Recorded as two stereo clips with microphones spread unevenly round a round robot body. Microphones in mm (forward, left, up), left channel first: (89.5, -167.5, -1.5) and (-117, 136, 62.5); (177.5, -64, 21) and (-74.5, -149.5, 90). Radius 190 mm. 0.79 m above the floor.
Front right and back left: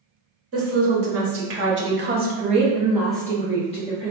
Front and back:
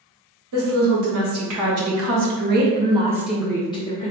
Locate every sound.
0.5 s a woman speaking: straight behind, 1.4 m; by 4.1 s 10° right, 0.9 m